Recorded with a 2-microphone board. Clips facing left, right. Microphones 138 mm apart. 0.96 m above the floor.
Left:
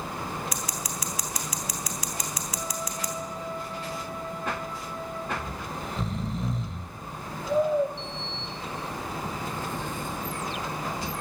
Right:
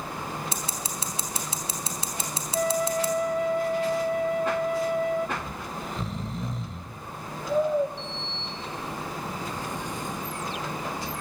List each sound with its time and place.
0.5 s scissors: 30° right (ahead or behind), 3.5 m
2.5 s a flute: 65° right (ahead or behind), 0.9 m
5.4 s snoring: centre (ahead or behind), 1.6 m
8.0 s a sliding door: 15° right (ahead or behind), 3.5 m